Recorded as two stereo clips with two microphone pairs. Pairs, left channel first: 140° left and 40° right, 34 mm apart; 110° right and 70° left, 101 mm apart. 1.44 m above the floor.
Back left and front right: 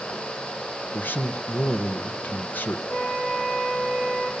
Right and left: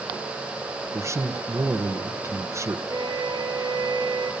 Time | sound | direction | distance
0.9 | a man speaking | 130° left | 1.4 m
2.9 | a flute | 115° left | 2 m